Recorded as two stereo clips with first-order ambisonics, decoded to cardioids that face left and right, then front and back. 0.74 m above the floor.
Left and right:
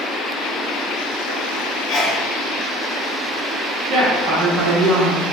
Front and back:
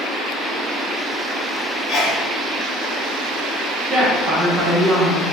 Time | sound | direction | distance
1.9 | a sneeze | 60° left | 1.3 m
3.9 | a woman speaking | 120° right | 1.0 m